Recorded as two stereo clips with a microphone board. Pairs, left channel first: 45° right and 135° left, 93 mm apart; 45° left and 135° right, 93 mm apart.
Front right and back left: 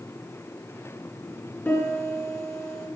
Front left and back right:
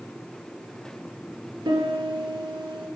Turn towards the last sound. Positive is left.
turn(degrees=-110)